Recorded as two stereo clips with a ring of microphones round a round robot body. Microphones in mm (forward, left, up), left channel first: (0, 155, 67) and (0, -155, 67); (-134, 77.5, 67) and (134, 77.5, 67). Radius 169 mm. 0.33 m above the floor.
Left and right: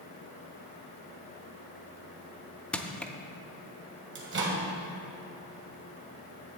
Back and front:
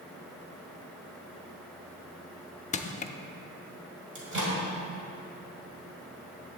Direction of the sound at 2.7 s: 175° left.